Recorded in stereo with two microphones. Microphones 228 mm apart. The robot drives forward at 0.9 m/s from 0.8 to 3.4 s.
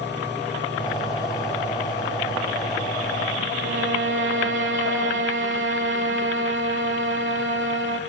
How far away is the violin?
About 0.7 m.